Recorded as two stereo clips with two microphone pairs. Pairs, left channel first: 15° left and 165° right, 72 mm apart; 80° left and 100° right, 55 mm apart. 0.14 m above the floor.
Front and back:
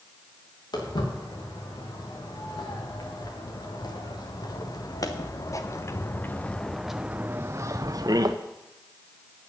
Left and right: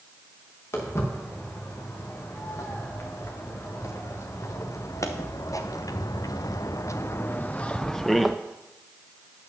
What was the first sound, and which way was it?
Footsteps, 35° left.